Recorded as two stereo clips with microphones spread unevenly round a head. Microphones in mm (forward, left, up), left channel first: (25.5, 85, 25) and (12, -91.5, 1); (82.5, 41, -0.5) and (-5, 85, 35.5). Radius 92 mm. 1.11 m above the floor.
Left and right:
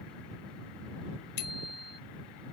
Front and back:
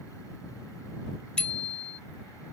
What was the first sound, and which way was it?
A bicycle bell, 55° left.